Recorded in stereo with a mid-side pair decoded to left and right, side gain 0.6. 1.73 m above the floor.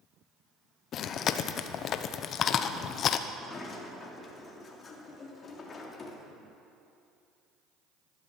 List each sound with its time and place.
0.9 s chewing: 50° left, 0.9 m
3.3 s a sliding door: 35° left, 2.5 m